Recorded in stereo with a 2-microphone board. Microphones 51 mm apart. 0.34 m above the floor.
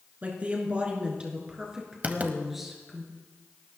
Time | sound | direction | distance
0.2 | a woman speaking | 35° right (ahead or behind) | 4 m
2.0 | writing | 30° right (ahead or behind) | 1.3 m